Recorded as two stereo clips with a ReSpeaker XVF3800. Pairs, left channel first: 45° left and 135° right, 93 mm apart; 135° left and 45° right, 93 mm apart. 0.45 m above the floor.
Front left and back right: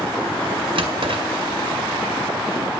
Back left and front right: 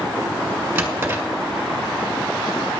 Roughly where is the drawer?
Behind right.